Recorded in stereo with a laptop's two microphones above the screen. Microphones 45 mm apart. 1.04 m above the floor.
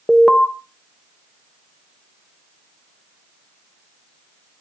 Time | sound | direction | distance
0.1 | an alarm | 5° left (ahead or behind) | 0.6 m